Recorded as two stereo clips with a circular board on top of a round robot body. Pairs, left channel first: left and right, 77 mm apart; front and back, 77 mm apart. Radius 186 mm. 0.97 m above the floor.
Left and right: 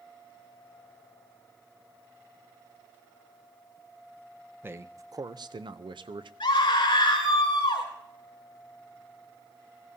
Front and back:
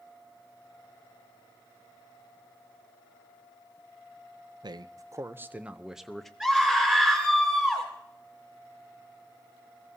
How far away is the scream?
About 3 m.